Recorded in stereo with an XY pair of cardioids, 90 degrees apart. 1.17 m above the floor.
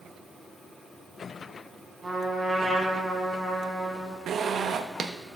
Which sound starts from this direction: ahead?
A trumpet, at 2.0 s.